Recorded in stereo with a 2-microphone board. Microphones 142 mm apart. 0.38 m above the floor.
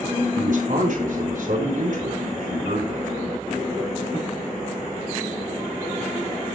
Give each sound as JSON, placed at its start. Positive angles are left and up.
{"t": 0.3, "sound": "a man speaking", "side_deg": -70, "distance_m": 4.5}